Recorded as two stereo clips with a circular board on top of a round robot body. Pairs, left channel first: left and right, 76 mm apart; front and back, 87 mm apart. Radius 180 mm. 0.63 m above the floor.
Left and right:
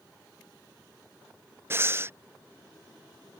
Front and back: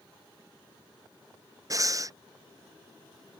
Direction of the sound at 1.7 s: 140° right.